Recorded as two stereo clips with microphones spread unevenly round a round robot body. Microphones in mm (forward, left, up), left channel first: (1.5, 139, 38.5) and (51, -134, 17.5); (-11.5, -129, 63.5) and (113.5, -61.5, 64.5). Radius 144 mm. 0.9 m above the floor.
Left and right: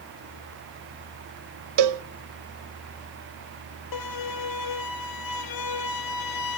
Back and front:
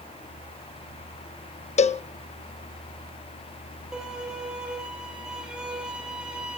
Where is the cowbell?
110° right, 0.7 m.